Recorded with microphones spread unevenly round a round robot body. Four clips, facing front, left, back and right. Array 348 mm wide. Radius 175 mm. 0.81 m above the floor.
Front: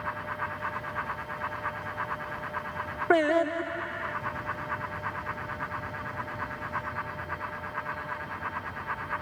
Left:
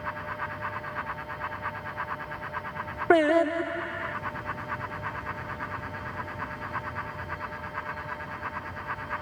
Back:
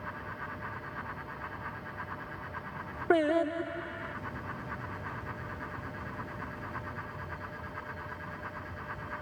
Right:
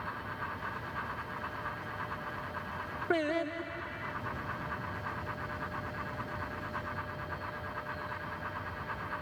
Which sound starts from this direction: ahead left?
Singing, at 3.1 s.